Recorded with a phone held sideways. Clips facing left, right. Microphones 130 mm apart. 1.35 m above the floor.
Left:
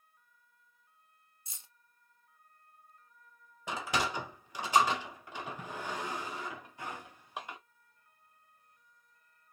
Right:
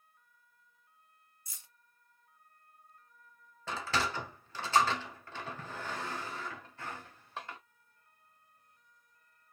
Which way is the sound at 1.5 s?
25° left (ahead or behind).